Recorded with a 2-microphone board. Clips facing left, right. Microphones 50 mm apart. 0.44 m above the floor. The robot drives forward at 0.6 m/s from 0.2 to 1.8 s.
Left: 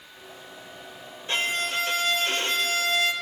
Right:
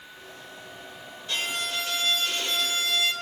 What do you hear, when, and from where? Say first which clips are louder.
1.3 s a violin: left 4 dB; 35° left (ahead or behind), 1.3 m; by 3.1 s 40° left (ahead or behind), 1.1 m